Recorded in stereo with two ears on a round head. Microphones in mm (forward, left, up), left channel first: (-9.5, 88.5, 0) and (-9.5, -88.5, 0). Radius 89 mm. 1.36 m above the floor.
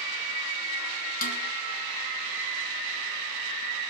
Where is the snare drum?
45° left (ahead or behind), 1.8 m.